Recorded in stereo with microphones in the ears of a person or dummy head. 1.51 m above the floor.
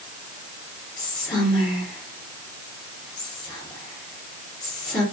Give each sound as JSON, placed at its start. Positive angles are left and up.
{"t": 1.0, "sound": "whispering", "side_deg": 20, "distance_m": 1.7}